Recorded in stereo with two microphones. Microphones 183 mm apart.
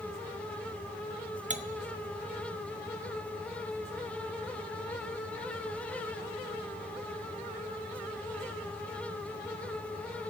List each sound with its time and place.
1.5 s cutlery clinking: 40° right (ahead or behind), 0.5 m